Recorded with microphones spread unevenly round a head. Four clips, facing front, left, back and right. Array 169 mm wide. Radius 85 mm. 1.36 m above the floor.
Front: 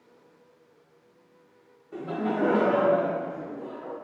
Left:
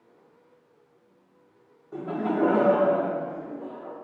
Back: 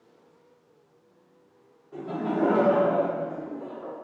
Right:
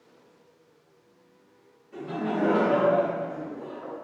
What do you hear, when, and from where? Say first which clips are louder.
1.9 s laughter: left 2 dB, even; 65° left, 0.5 m; by 4.0 s straight behind, 1.4 m